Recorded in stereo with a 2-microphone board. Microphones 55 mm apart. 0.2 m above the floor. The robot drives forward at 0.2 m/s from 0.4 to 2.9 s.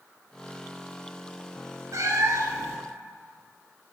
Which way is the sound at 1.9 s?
70° right (ahead or behind).